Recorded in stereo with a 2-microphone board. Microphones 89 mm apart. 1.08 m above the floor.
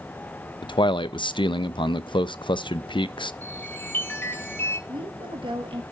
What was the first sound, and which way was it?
A man speaking, 65° left (ahead or behind).